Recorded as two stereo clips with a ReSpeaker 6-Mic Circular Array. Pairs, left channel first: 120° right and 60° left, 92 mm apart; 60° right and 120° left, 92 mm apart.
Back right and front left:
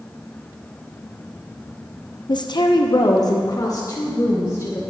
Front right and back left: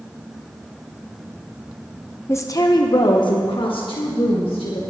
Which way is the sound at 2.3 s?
110° right.